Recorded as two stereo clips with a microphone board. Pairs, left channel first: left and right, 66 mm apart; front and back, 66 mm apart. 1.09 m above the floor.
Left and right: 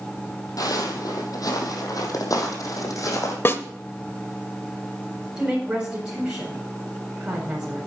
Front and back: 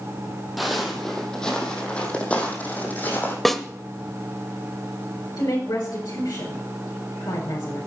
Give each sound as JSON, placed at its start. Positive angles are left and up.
{"t": 0.6, "sound": "footsteps", "azimuth_deg": 90, "distance_m": 2.5}
{"t": 3.5, "sound": "a snare drum", "azimuth_deg": 85, "distance_m": 1.0}
{"t": 5.4, "sound": "a woman speaking", "azimuth_deg": -15, "distance_m": 4.0}